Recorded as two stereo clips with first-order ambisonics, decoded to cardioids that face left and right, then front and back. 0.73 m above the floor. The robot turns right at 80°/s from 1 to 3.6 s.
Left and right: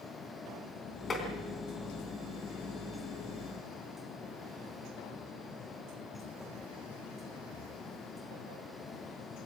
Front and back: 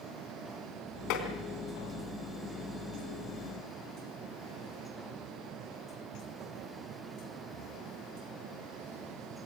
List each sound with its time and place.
1.1 s tapping: 20° left, 3.5 m; by 1.3 s 35° left, 3.5 m